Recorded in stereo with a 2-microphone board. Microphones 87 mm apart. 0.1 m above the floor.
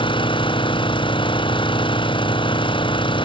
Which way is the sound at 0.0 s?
70° left (ahead or behind).